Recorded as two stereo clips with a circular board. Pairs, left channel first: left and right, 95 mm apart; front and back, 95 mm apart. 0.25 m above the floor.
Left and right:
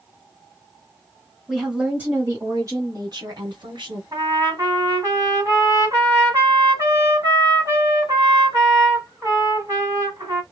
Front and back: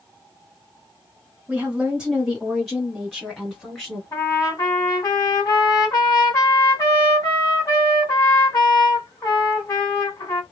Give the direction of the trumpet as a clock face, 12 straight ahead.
1 o'clock.